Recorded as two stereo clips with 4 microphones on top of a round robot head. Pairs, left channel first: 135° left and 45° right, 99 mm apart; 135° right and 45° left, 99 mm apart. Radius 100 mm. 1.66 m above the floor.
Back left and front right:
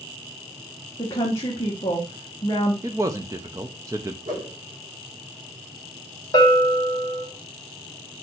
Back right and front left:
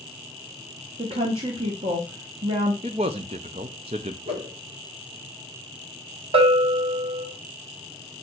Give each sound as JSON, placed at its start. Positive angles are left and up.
{"t": 1.0, "sound": "a woman speaking", "azimuth_deg": 75, "distance_m": 1.1}
{"t": 2.8, "sound": "a man speaking", "azimuth_deg": 15, "distance_m": 0.5}
{"t": 4.2, "sound": "a whoosh", "azimuth_deg": 15, "distance_m": 4.0}
{"t": 6.3, "sound": "a bell", "azimuth_deg": 80, "distance_m": 2.0}